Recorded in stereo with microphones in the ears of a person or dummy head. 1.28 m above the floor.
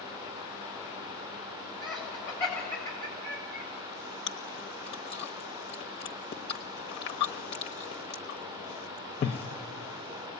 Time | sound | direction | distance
1.8 | laughter | 10° left (ahead or behind) | 8.5 m
4.3 | chewing | 30° left (ahead or behind) | 1.1 m